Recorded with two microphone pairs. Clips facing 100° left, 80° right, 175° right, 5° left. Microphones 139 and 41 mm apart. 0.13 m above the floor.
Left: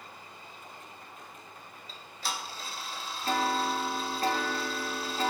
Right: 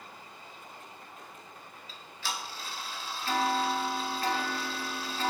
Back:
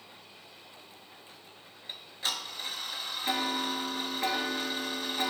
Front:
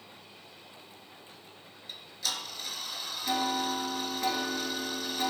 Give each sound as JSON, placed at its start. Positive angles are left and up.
{"t": 1.9, "sound": "ticking", "azimuth_deg": 135, "distance_m": 0.5}